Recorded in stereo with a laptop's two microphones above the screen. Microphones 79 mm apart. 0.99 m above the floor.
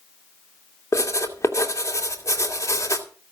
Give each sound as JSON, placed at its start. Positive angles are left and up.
{"t": 0.9, "sound": "writing", "side_deg": 40, "distance_m": 2.5}